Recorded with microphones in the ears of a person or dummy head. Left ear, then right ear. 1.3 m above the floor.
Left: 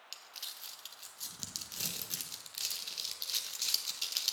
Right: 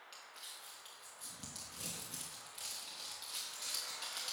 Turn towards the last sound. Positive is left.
turn(degrees=35)  # may be behind; listen again after turning